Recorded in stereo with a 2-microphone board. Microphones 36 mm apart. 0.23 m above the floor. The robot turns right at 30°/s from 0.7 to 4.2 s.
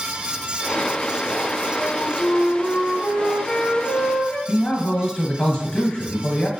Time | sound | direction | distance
1.8 | a flute | 10° right (ahead or behind) | 1.2 m
4.5 | a man speaking | 30° left (ahead or behind) | 1.1 m